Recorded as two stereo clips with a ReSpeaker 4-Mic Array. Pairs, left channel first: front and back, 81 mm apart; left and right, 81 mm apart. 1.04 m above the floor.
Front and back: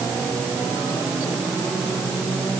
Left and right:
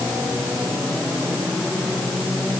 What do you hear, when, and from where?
Only background noise.